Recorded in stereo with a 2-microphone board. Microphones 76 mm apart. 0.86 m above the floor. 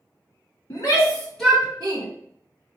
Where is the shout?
55° left (ahead or behind), 1.3 m; by 2.0 s 65° right (ahead or behind), 1.0 m.